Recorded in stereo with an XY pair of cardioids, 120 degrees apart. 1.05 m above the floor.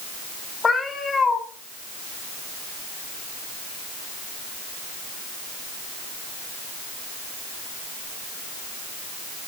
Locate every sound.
0.6 s a cat meowing: 25° left, 2.5 m